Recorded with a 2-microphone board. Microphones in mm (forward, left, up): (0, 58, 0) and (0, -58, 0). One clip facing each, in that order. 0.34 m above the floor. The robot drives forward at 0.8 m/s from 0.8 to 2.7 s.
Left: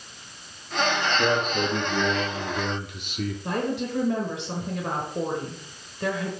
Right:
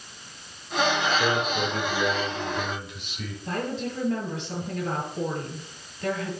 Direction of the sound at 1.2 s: 45° left (ahead or behind).